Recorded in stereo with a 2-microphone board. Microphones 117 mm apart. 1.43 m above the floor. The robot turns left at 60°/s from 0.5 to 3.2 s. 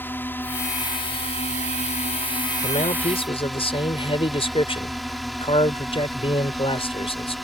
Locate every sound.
0.0 s a drone: 160° left; by 7.5 s straight ahead
2.6 s a man speaking: 90° left; by 7.3 s 55° left